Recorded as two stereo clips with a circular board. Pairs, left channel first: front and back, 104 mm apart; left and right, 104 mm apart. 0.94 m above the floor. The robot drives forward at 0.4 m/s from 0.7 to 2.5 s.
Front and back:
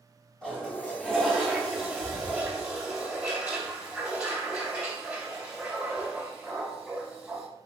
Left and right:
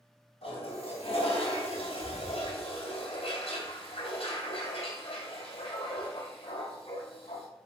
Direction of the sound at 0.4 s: 80° left.